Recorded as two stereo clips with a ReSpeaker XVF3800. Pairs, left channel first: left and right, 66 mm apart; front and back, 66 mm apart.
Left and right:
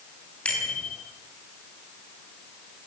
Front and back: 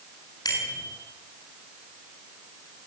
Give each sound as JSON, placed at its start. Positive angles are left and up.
{"t": 0.5, "sound": "a bicycle bell", "azimuth_deg": 15, "distance_m": 8.5}